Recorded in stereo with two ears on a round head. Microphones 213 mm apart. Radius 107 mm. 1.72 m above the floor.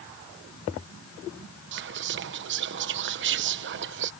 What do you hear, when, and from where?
1.7 s whispering: 50° right (ahead or behind)